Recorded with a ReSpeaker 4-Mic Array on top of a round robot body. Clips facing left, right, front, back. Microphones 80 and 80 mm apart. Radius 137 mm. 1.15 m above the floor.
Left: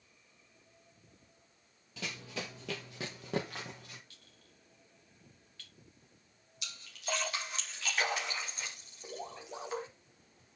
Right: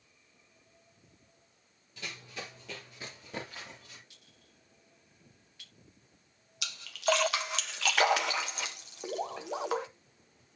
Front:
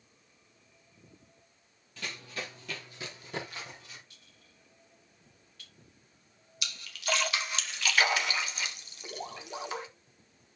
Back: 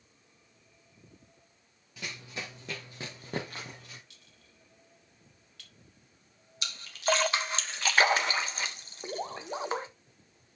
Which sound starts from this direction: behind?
A clink, at 4.1 s.